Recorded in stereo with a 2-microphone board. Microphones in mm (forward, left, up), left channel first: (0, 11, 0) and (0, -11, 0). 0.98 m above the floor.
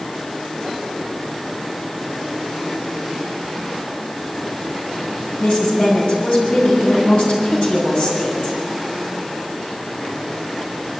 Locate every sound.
5.4 s a woman speaking: 55° left (ahead or behind), 7.5 m